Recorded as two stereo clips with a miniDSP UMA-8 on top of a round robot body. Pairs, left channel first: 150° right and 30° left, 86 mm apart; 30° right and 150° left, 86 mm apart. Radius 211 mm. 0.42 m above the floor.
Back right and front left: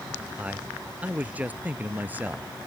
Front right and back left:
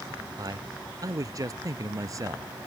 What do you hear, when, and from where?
0.4 s a man speaking: 105° left; by 2.5 s 100° left